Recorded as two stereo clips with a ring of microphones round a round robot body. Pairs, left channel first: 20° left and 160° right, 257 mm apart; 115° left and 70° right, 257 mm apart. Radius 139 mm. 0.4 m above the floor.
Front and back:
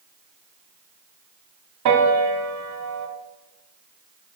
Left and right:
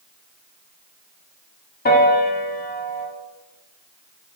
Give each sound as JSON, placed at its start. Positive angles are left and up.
{"t": 1.9, "sound": "a piano", "azimuth_deg": 175, "distance_m": 0.6}